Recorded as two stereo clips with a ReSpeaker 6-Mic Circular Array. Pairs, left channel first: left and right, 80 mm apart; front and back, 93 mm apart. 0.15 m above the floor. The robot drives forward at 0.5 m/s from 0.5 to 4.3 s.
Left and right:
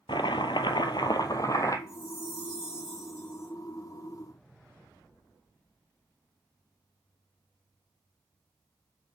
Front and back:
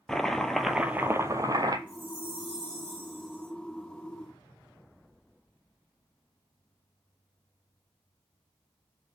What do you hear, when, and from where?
0.1 s chopping: 85° left, 0.6 m; by 1.8 s 135° left, 0.8 m
1.9 s a chime: 175° right, 3 m